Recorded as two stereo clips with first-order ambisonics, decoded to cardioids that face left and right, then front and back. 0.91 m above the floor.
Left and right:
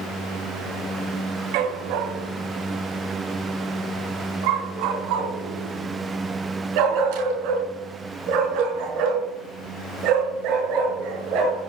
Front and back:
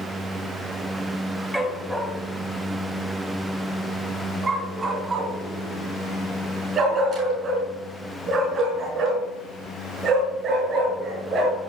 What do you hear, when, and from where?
1.5 s a dog barking: 90° right, 2.5 m; by 11.6 s 120° right, 7.5 m